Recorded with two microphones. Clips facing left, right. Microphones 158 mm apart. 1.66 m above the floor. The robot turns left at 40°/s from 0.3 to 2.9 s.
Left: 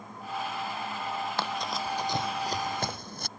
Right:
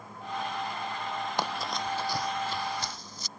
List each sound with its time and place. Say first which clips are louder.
1.4 s running footsteps: even; 15° right (ahead or behind); by 3.3 s 60° left (ahead or behind)